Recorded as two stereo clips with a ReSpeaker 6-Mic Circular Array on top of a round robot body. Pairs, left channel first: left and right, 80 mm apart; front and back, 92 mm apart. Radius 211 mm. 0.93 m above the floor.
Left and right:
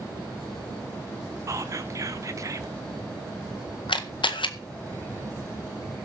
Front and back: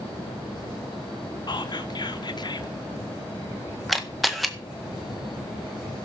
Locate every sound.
1.5 s whispering: 40° right, 1.7 m
3.9 s a camera shutter: 90° left, 1.7 m